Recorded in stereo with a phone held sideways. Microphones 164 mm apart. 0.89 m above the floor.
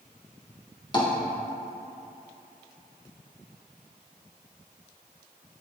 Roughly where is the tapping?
Left.